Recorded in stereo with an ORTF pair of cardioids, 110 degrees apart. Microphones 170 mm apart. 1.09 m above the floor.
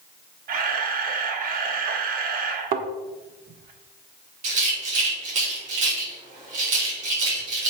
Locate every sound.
0.5 s a camera shutter: 60° right, 1.3 m
2.7 s a thud: 65° right, 1.3 m
4.4 s a rattle: 50° right, 4.5 m